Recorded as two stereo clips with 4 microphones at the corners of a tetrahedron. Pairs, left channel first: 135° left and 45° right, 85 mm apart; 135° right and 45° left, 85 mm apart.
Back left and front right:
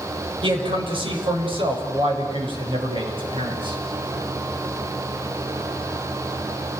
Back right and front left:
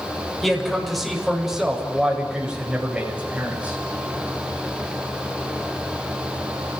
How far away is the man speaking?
About 7 m.